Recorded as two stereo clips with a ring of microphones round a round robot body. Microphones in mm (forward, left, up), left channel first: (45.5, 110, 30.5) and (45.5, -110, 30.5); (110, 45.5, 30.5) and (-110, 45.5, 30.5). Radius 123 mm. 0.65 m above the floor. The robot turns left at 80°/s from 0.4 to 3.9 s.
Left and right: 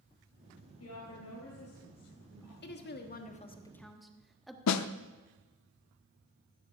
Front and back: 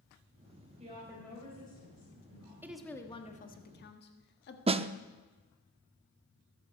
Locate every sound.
0.8 s a woman speaking: 120° left, 4 m; by 2.5 s 15° right, 4 m
2.6 s a woman speaking: 105° left, 1.3 m; by 4.6 s straight ahead, 1.3 m
4.7 s a snare drum: 115° left, 0.5 m